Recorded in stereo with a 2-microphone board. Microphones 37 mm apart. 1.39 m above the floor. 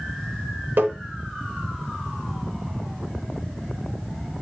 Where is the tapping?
75° right (ahead or behind), 4 m.